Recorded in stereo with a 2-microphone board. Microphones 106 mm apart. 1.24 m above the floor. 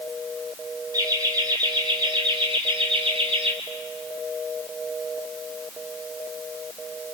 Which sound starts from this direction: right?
Laughter, at 0.9 s.